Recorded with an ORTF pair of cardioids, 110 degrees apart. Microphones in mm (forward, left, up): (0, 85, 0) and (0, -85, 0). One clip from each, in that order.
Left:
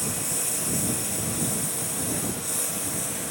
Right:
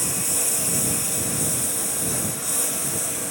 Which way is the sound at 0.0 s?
30° right.